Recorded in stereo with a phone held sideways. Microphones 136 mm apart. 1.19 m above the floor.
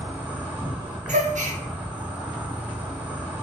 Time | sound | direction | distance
0.0 | an insect | 15° right (ahead or behind) | 1.2 m
1.1 | a gasp | 65° right (ahead or behind) | 0.6 m